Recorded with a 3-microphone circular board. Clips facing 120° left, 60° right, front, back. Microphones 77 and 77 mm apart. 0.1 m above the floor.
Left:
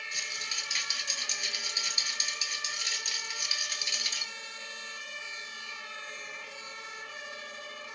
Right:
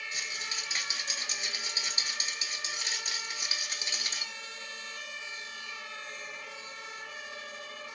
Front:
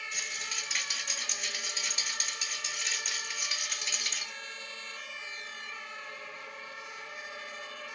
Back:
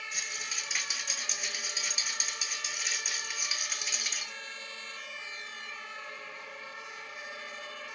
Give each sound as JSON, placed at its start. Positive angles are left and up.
{"t": 0.1, "sound": "a rattle", "azimuth_deg": -100, "distance_m": 0.6}